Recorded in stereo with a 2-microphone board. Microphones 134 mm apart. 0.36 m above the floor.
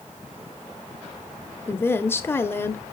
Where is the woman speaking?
20° left (ahead or behind), 0.9 m.